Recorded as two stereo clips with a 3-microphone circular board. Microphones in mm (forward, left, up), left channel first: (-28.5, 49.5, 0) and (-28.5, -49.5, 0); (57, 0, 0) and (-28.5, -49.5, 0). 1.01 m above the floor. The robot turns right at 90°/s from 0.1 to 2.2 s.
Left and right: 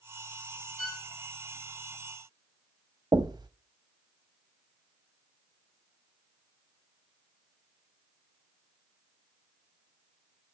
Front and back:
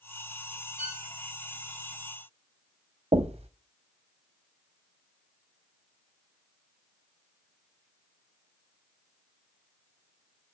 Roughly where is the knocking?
Behind right.